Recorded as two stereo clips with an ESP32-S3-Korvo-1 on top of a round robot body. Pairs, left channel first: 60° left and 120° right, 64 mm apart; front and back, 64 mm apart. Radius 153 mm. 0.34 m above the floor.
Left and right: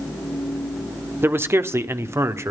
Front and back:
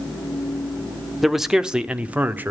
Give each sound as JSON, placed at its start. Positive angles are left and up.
{"t": 1.2, "sound": "a man speaking", "azimuth_deg": -90, "distance_m": 1.5}